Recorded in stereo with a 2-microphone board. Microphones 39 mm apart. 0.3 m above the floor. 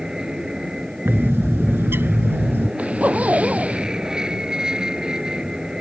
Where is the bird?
75° right (ahead or behind).